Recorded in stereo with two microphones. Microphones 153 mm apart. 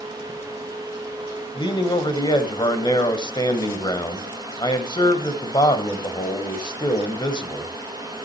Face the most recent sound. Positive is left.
turn(degrees=30)  # may be behind; listen again after turning